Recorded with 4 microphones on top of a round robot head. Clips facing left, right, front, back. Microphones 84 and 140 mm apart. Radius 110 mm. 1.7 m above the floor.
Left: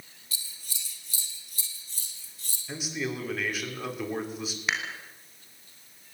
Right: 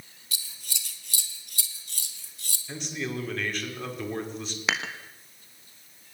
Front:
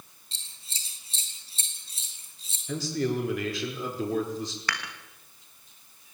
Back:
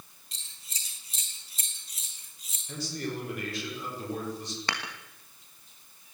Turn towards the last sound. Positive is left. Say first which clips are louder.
# right 2 dB, even
turn(degrees=-110)